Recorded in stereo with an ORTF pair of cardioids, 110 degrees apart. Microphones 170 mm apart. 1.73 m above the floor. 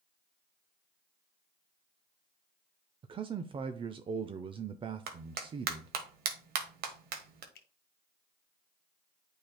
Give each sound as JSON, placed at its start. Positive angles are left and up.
{"t": 3.0, "sound": "a man speaking", "azimuth_deg": -30, "distance_m": 0.5}
{"t": 5.1, "sound": "a clap", "azimuth_deg": -65, "distance_m": 1.3}
{"t": 7.5, "sound": "a finger snap", "azimuth_deg": 70, "distance_m": 1.3}